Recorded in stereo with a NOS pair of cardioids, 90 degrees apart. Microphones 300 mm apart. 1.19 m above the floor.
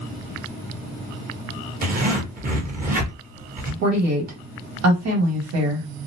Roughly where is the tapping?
I don't hear tapping.